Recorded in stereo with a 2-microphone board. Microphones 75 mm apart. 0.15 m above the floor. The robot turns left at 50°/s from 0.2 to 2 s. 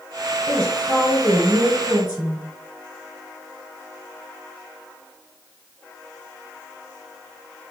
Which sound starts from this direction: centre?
A woman speaking, at 0.5 s.